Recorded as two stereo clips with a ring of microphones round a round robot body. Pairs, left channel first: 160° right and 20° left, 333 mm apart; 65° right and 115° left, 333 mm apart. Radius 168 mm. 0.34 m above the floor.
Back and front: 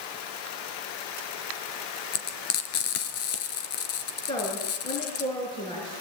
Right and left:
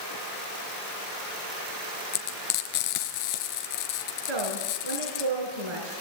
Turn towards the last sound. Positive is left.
turn(degrees=125)